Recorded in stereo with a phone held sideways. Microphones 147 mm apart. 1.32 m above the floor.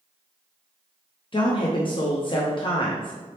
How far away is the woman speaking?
About 0.5 m.